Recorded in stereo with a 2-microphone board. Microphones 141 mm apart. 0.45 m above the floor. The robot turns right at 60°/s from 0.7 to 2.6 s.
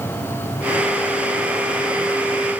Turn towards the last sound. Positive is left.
No sound to turn to.